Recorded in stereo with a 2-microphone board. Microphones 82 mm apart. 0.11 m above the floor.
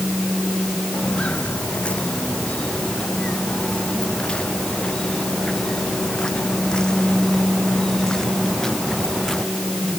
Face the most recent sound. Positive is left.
turn(degrees=5)  # may be behind; listen again after turning